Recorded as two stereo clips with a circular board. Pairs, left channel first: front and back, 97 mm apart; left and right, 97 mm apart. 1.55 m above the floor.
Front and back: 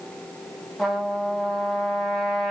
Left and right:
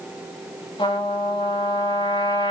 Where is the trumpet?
85° left, 5 m.